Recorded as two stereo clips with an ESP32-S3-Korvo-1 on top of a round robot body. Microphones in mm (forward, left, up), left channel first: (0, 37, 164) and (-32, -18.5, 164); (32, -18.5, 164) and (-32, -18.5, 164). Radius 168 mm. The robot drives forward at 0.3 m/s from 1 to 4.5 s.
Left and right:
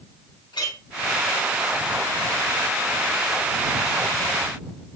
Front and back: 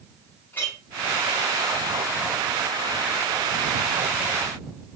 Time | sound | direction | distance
0.5 | a clink | 60° left | 3.5 m